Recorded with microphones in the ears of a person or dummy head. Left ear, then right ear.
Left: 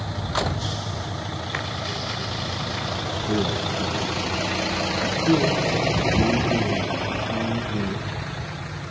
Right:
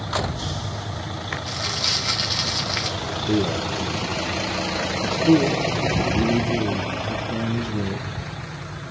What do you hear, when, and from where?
1.5 s crumpling: 65° right (ahead or behind), 2.5 m
3.3 s a man speaking: 70° right (ahead or behind), 2 m